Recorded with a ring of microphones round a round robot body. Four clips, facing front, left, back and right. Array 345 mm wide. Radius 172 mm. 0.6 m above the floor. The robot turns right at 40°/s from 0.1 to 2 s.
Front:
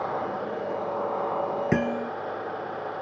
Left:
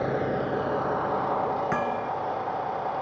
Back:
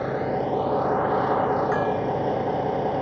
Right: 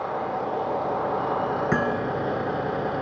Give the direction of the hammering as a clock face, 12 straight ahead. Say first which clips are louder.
Right 3 dB, back 3 dB; 1 o'clock.